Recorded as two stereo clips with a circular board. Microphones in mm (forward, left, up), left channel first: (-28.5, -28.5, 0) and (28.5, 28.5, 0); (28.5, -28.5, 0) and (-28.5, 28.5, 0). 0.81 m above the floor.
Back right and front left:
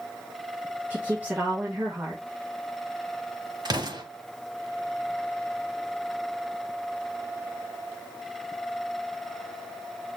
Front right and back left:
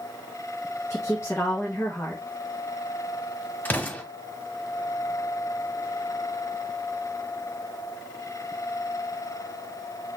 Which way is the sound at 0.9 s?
10° right.